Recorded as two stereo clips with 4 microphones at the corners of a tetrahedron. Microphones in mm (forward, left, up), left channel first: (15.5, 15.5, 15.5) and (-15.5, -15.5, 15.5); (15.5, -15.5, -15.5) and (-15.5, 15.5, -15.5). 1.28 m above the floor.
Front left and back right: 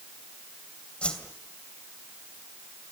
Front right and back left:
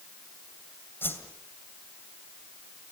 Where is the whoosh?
15° right, 2.5 m.